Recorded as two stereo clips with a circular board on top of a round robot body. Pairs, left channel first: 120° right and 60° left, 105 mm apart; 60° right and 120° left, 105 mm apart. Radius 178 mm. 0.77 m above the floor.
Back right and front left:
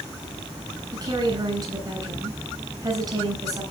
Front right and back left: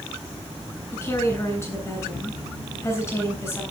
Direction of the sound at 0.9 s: 5° left.